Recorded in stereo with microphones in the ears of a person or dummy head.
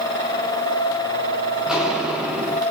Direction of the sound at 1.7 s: Centre (ahead or behind).